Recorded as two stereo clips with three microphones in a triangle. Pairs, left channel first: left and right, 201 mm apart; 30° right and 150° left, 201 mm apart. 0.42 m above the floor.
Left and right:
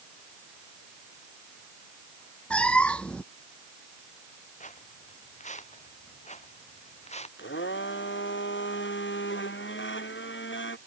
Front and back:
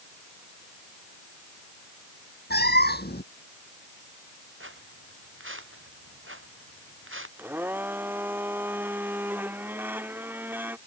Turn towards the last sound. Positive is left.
turn(degrees=70)